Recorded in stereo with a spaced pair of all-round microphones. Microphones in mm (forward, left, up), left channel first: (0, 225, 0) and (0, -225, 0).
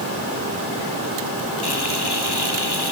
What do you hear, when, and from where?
1.6 s frying: 60° left (ahead or behind)